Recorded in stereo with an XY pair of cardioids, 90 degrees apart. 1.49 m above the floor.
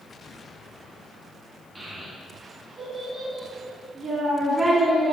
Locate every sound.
1.8 s a child speaking: 30° right, 1.2 m